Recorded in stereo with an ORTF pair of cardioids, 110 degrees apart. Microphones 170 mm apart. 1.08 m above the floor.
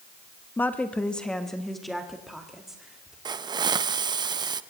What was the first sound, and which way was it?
A woman speaking, 10° left.